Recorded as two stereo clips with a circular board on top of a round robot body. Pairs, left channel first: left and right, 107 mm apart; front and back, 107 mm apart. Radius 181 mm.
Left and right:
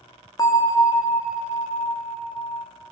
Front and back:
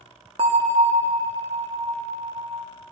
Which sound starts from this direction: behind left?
A bell, at 0.4 s.